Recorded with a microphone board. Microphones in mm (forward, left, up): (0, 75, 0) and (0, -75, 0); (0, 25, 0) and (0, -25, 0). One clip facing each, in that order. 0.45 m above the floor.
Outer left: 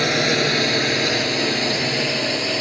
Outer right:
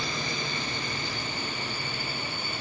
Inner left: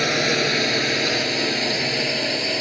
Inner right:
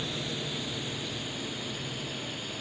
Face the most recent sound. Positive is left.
turn(degrees=80)